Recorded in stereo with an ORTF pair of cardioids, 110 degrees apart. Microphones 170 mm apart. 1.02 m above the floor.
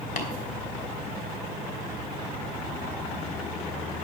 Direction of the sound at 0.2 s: 55° left.